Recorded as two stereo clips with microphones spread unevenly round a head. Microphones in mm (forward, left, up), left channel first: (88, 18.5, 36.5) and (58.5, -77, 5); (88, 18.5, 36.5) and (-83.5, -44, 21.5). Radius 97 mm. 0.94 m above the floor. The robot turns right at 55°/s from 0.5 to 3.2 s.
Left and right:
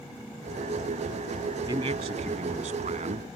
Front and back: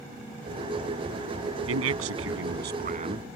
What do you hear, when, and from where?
1.7 s a man speaking: straight behind; by 3.4 s 95° right